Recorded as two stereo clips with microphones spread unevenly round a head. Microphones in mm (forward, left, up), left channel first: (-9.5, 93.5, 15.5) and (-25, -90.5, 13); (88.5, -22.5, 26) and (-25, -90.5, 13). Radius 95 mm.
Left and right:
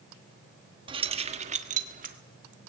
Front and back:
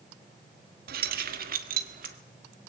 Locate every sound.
0.9 s keys jangling: 160° right, 1.2 m; by 2.1 s 140° right, 1.8 m